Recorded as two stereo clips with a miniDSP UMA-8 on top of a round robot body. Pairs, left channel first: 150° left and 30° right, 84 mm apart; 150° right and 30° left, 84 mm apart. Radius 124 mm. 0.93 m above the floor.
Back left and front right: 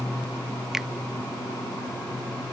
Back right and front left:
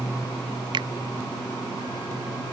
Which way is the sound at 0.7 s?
55° left.